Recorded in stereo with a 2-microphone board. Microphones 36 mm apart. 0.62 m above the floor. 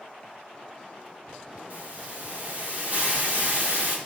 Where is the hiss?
45° right (ahead or behind), 1.9 m.